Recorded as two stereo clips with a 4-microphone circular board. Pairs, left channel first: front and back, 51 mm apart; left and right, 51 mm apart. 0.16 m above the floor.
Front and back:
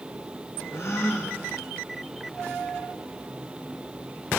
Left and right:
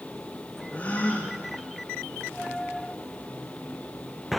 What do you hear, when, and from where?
0.7 s a gasp: 30° left, 4.5 m